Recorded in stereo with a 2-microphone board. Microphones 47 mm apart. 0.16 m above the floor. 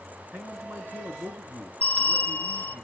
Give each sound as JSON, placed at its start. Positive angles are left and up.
{"t": 0.3, "sound": "a man speaking", "side_deg": -45, "distance_m": 2.0}
{"t": 1.8, "sound": "a bell", "side_deg": 35, "distance_m": 0.6}